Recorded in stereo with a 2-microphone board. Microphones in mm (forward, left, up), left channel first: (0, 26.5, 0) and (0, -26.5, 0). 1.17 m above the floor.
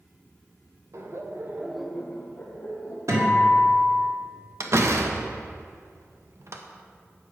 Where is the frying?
I don't hear frying.